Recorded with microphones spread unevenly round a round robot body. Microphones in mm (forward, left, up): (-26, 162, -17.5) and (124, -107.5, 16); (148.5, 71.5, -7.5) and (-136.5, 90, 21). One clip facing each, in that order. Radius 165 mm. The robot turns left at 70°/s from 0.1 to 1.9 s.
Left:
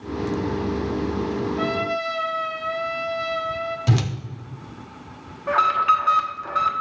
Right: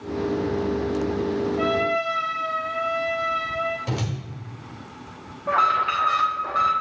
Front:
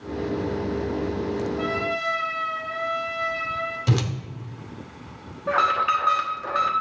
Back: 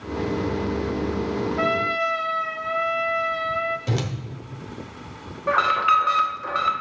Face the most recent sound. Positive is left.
turn(degrees=95)